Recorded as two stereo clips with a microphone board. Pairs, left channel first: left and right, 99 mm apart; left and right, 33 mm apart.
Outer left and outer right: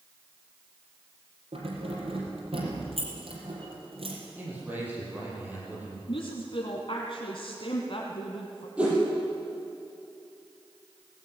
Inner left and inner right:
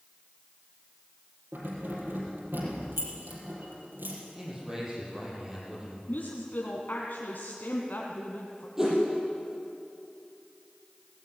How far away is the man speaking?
About 8 m.